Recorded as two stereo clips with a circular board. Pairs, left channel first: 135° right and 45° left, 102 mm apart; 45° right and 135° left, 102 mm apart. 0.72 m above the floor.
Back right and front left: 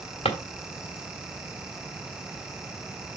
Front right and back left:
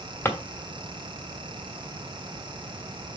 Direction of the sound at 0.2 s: 115° right.